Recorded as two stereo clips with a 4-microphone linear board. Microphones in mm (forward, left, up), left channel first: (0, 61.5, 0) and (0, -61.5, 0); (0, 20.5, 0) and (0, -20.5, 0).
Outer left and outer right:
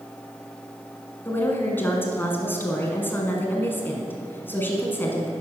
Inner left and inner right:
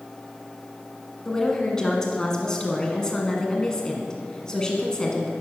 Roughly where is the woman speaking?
Centre.